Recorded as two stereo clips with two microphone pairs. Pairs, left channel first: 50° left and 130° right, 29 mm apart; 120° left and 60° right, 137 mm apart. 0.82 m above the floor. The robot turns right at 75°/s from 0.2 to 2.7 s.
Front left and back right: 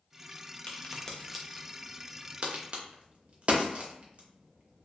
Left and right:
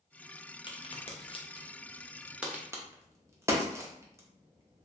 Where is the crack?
85° left, 0.5 m; by 4.8 s 125° right, 0.5 m.